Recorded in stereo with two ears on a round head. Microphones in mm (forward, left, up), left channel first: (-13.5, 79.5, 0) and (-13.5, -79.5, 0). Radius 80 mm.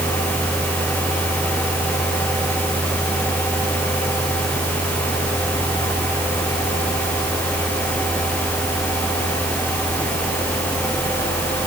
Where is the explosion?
No explosion in this recording.